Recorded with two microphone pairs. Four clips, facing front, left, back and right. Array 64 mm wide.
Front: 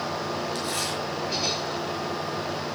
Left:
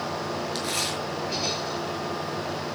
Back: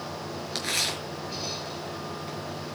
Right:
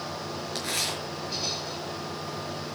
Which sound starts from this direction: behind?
Tearing paper, at 0.6 s.